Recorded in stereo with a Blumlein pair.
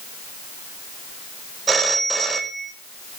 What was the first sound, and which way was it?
A phone ringing, 15° right.